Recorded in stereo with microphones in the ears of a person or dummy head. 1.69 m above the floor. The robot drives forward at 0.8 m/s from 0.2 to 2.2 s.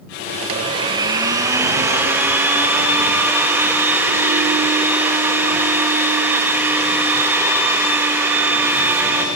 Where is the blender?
35° right (ahead or behind), 0.8 m; by 9.3 s 15° right (ahead or behind), 1.9 m.